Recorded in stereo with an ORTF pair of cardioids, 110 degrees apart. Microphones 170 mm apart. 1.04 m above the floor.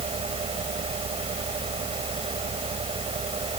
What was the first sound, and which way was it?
A fan, 35° right.